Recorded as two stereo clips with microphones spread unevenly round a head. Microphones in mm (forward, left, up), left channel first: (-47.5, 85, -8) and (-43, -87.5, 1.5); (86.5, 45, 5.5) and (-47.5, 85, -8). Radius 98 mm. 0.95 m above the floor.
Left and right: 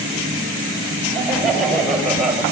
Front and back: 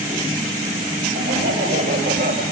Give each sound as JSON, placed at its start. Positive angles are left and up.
{"t": 1.1, "sound": "laughter", "azimuth_deg": 180, "distance_m": 5.0}